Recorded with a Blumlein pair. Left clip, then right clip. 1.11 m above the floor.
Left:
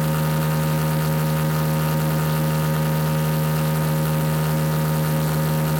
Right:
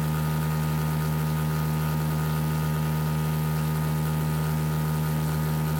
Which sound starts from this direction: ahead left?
A machine running, at 0.0 s.